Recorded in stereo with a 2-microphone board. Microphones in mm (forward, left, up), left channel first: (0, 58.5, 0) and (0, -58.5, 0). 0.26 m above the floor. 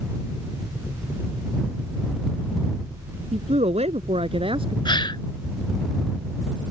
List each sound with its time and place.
3.3 s a man speaking: 70° right (ahead or behind); by 4.8 s 45° right (ahead or behind)
4.8 s a gasp: 40° left (ahead or behind)